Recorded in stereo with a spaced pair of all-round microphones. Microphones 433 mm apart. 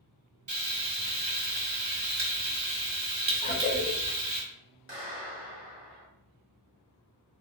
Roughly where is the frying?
Right.